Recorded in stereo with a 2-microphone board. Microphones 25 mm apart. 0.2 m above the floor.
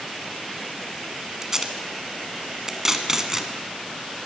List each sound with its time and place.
1.4 s tape being pulled: 20° right (ahead or behind), 1.3 m